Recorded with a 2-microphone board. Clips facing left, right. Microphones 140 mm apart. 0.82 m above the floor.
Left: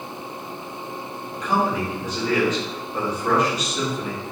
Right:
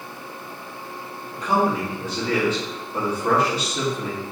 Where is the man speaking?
30° right (ahead or behind), 1.4 m.